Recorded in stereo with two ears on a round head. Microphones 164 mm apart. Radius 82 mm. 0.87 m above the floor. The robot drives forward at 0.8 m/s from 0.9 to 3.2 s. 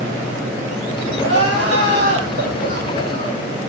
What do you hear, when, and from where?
1.2 s crying: 70° right (ahead or behind), 4.5 m; by 3.5 s 55° right (ahead or behind), 5 m